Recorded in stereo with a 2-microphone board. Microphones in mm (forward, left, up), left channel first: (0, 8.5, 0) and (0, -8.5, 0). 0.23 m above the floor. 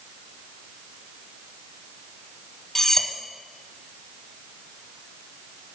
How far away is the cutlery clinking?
About 0.7 m.